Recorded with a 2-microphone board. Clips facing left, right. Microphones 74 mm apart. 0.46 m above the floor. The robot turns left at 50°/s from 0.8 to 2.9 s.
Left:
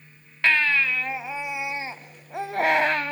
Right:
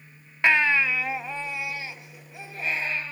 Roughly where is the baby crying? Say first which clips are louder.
Right 1 dB; behind.